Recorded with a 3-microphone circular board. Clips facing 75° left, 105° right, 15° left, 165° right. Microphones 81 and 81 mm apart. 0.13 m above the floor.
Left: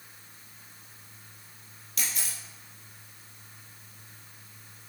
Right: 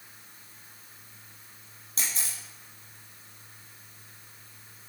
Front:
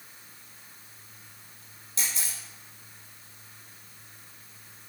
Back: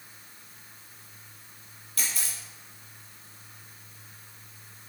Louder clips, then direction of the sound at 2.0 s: Even, even; 50° right.